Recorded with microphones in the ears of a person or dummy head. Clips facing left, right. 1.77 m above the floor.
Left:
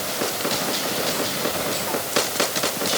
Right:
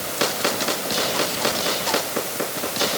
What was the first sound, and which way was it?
Only background noise.